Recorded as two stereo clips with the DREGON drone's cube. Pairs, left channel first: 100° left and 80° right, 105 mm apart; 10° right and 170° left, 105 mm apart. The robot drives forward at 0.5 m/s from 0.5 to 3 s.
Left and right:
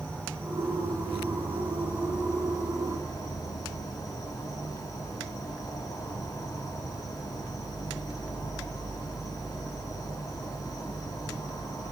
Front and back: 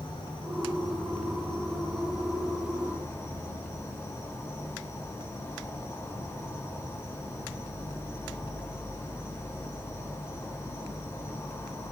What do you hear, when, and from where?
0.0 s an insect: 25° left, 2.5 m; by 11.9 s 50° left, 1.5 m